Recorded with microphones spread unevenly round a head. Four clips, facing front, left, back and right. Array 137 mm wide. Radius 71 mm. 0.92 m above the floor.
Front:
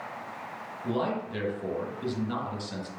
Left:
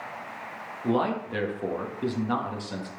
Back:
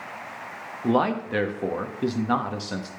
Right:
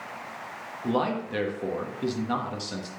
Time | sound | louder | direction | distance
0.8 | a man speaking | left 1 dB, back 7 dB | 175° left | 1.4 m